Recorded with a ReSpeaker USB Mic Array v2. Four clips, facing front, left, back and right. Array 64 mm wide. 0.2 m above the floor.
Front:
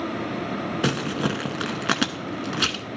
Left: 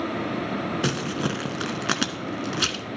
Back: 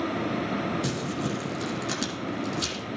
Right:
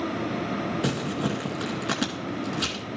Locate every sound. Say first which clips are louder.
0.8 s crumpling: left 1 dB, front 5 dB; 25° left, 0.7 m